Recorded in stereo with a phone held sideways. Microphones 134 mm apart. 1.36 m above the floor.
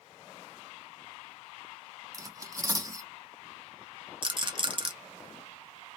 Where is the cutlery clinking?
25° right (ahead or behind), 0.5 m.